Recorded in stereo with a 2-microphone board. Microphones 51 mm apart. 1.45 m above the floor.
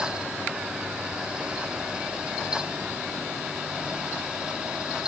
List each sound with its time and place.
Only background noise.